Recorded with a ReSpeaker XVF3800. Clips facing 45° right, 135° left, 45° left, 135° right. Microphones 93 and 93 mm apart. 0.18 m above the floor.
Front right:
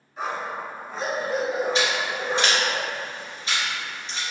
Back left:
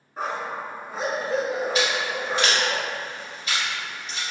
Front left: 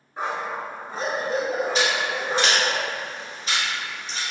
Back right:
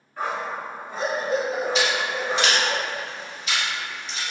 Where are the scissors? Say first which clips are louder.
Even, even; 5° left, 1.1 m.